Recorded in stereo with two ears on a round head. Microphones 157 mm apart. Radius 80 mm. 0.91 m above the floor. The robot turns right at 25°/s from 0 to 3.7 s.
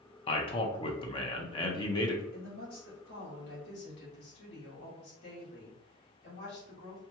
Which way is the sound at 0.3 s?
30° left (ahead or behind).